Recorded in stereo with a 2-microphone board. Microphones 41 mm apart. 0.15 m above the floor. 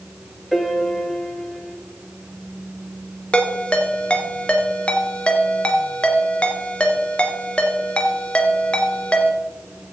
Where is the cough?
No cough in this recording.